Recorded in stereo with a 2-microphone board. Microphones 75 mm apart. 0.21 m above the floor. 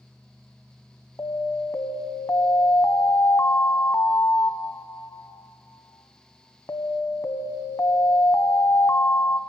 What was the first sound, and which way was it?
An alarm, 45° left (ahead or behind).